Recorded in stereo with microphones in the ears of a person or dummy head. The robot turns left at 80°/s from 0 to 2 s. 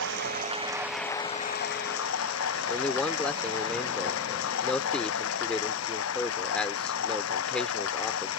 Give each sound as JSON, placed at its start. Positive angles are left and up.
{"t": 0.0, "sound": "running water", "azimuth_deg": -100}
{"t": 2.7, "sound": "a man speaking", "side_deg": 5}